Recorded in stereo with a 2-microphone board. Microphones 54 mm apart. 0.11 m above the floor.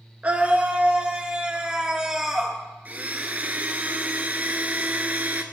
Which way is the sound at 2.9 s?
30° right (ahead or behind).